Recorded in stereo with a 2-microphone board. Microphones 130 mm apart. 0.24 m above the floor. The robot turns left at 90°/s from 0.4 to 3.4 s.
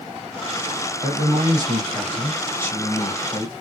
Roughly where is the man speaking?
Ahead right.